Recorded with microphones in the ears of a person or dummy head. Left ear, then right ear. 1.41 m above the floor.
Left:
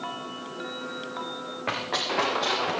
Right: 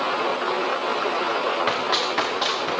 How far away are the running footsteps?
About 8 m.